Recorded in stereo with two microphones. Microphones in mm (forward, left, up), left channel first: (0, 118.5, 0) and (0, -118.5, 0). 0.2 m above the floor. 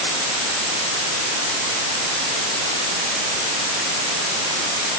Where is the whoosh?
I don't hear a whoosh.